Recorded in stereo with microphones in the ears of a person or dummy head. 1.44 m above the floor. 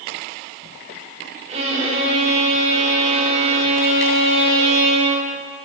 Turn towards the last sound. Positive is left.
turn(degrees=-35)  # may be behind; listen again after turning